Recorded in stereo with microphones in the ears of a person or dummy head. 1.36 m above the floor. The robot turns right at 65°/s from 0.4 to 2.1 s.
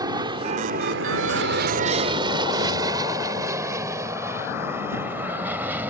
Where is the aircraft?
20° right (ahead or behind); by 5.9 s 10° right (ahead or behind).